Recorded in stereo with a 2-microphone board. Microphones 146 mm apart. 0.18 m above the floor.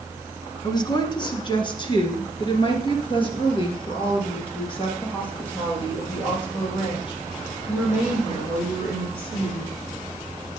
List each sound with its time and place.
0.6 s a woman speaking: 30° left (ahead or behind), 1.5 m; by 9.7 s 35° left (ahead or behind), 6 m